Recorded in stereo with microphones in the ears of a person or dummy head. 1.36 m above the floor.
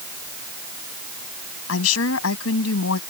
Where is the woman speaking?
85° left.